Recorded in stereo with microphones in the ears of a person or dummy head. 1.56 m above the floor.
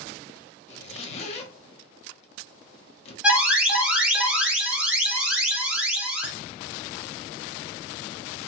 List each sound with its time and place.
0.7 s a zipper: 40° left (ahead or behind), 0.7 m
3.2 s an alarm: 10° right (ahead or behind), 1.3 m